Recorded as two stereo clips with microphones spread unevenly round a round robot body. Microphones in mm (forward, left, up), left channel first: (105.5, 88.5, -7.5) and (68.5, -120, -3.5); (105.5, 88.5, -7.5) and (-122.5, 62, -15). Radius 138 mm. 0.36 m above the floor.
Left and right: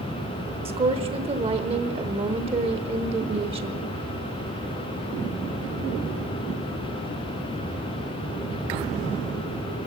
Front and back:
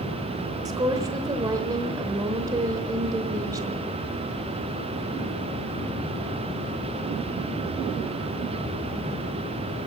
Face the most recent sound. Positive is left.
turn(degrees=-125)